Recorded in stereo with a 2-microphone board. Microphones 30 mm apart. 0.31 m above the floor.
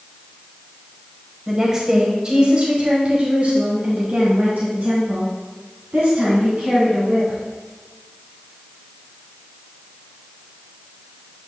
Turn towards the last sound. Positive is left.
turn(degrees=-65)  # may be behind; listen again after turning